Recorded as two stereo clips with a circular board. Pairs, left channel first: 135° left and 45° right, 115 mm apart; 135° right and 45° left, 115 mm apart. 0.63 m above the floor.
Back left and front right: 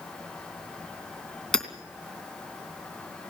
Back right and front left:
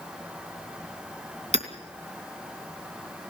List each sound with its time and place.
1.5 s hammering: 50° left, 2.5 m